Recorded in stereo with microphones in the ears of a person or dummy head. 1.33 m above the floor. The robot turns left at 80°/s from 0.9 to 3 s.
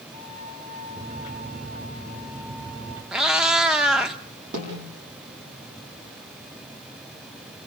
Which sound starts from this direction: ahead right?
A flute, at 0.1 s.